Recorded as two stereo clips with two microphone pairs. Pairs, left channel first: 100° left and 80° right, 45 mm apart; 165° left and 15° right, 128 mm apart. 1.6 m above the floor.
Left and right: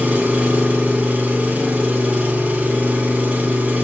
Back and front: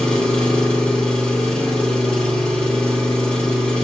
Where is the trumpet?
No trumpet in this recording.